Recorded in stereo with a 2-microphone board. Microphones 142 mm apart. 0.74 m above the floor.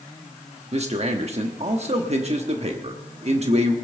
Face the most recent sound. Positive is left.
turn(degrees=-50)  # may be behind; listen again after turning